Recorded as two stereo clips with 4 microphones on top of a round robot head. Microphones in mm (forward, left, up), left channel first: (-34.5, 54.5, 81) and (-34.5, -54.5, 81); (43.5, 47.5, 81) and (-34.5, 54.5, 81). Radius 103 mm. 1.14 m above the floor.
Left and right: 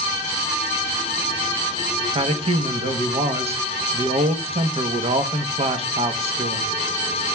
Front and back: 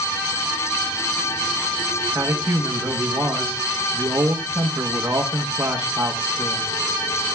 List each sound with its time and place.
2.1 s a man speaking: 120° right, 1.0 m